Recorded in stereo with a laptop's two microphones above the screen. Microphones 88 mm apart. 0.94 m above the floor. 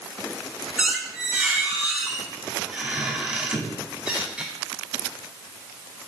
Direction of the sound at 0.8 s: 15° right (ahead or behind).